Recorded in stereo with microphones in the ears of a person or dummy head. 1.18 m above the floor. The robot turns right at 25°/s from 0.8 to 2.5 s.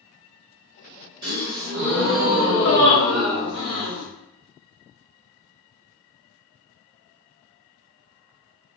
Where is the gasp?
30° right, 1.7 m; by 4.0 s 5° left, 1.7 m.